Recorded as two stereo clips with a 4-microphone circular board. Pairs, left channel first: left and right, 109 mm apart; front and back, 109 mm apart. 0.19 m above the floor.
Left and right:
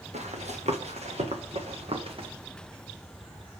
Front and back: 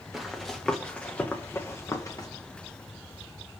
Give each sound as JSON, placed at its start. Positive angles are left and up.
{"t": 0.1, "sound": "running footsteps", "azimuth_deg": -90, "distance_m": 2.0}